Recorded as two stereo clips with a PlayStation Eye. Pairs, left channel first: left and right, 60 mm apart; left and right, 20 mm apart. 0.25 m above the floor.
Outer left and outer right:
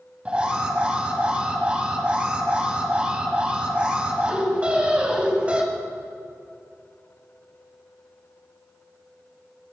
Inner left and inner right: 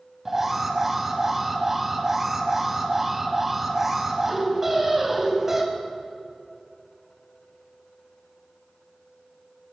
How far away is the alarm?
About 2.0 m.